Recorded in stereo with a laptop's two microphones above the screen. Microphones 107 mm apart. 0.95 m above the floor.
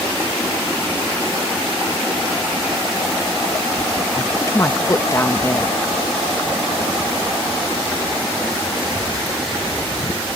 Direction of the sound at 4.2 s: 25° left (ahead or behind).